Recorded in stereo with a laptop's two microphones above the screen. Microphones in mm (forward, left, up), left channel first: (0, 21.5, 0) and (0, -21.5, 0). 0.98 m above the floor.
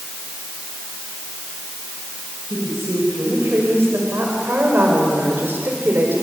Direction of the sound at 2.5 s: 65° right (ahead or behind).